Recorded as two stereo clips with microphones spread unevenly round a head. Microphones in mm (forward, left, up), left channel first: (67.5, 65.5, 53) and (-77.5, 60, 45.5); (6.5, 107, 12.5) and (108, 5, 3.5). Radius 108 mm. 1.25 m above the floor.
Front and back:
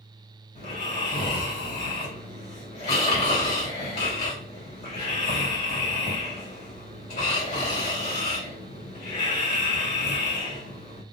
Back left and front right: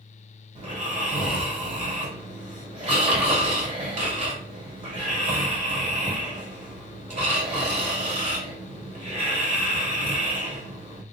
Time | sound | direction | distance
0.6 | snoring | 10° right | 2.5 m